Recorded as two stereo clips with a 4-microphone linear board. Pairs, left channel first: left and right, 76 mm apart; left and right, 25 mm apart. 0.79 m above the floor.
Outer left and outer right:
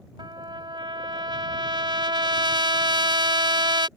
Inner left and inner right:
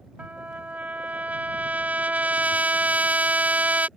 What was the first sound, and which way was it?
A trumpet, 85° right.